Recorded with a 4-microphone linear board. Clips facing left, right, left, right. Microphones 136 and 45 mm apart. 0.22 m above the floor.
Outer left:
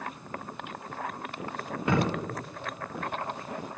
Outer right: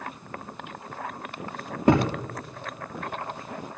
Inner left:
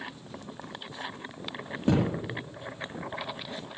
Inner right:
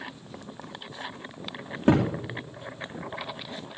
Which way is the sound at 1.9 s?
35° right (ahead or behind).